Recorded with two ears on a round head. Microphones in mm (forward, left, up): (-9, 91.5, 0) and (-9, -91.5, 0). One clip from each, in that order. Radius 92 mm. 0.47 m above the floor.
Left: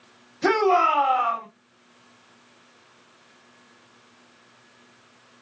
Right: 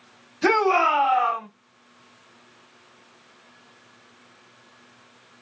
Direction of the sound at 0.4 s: 35° right (ahead or behind).